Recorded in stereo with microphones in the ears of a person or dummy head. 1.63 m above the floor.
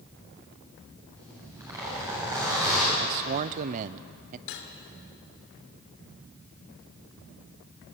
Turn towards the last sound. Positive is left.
turn(degrees=70)  # may be behind; listen again after turning